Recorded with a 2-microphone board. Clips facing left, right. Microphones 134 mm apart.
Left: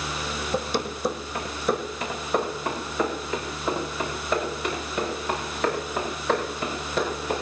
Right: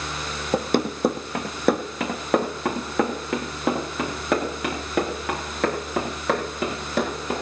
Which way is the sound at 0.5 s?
50° right (ahead or behind).